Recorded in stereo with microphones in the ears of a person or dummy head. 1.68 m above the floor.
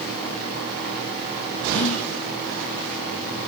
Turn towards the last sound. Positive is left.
turn(degrees=45)  # may be behind; listen again after turning